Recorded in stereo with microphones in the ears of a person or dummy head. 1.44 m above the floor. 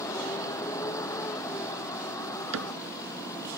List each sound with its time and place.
0.0 s a vehicle: 15° left (ahead or behind)
2.5 s a cupboard door: 75° right (ahead or behind)